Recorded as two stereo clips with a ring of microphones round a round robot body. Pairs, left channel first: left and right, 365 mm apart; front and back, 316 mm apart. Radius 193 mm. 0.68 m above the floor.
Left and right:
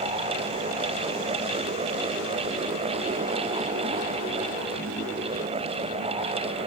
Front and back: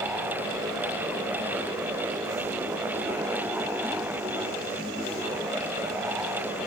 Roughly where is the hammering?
I don't hear hammering.